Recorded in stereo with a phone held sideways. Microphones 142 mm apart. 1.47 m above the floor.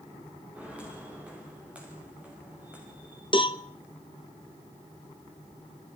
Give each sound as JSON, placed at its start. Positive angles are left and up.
{"t": 0.6, "sound": "footsteps", "side_deg": -10, "distance_m": 8.0}
{"t": 3.3, "sound": "a cowbell", "side_deg": 35, "distance_m": 0.9}